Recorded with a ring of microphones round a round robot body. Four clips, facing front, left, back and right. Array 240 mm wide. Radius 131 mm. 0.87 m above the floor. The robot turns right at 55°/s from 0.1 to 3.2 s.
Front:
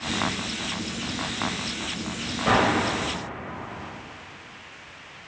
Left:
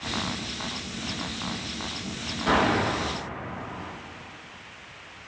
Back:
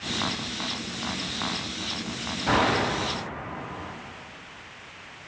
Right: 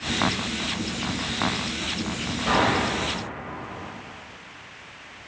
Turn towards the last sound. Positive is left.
turn(degrees=30)